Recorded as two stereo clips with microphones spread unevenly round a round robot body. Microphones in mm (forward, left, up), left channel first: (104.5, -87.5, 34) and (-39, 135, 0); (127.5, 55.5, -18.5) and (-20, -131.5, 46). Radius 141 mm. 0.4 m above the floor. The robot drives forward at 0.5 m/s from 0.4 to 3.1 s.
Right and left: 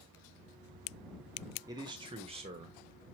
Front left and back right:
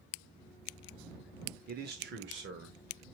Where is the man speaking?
Straight behind, 0.9 m.